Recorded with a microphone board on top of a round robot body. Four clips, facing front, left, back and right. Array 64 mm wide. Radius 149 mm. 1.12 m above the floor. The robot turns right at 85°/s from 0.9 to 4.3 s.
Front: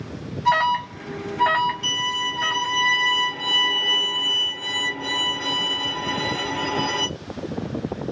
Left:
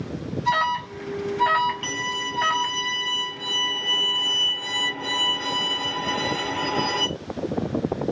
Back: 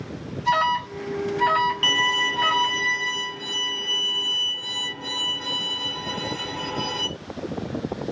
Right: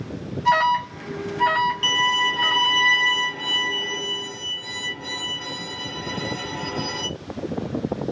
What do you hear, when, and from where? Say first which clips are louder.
0.5 s an alarm: right 4 dB, front 2 dB; 40° right, 0.6 m; by 2.8 s 120° left, 0.6 m
1.8 s a violin: right 7 dB, back 4 dB; 165° right, 0.7 m; by 7.1 s 45° left, 0.7 m